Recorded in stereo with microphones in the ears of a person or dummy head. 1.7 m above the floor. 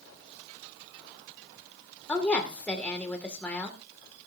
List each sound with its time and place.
2.1 s a woman speaking: 10° left (ahead or behind), 1.9 m